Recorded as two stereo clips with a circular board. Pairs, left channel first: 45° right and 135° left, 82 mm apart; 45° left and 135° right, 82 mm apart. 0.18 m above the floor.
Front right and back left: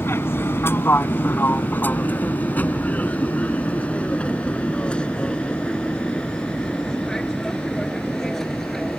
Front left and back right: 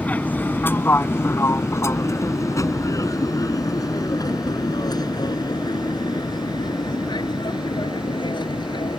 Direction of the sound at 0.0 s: 15° right.